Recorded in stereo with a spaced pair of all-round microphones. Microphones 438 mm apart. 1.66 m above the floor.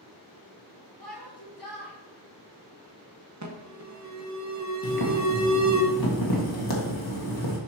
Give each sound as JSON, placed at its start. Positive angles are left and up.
{"t": 1.0, "sound": "a shout", "side_deg": 60, "distance_m": 1.4}
{"t": 3.4, "sound": "an alarm", "side_deg": -40, "distance_m": 0.9}
{"t": 4.8, "sound": "boiling", "side_deg": 55, "distance_m": 1.5}